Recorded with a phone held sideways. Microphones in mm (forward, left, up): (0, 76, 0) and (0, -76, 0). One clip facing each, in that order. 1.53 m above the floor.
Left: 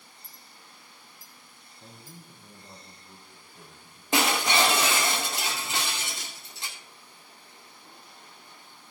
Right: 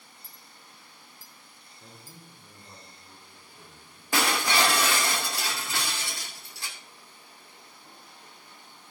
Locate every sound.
0.2 s a clink: 50° left (ahead or behind), 2.5 m
1.8 s a man speaking: 10° left (ahead or behind), 4 m
4.1 s breaking glass: 25° left (ahead or behind), 2 m